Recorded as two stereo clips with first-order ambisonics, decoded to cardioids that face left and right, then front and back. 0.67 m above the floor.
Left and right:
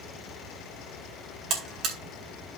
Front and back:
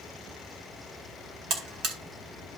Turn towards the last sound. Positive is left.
turn(degrees=-135)